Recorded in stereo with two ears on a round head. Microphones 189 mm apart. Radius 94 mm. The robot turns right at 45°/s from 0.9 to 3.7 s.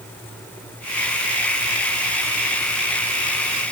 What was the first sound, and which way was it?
Only background noise.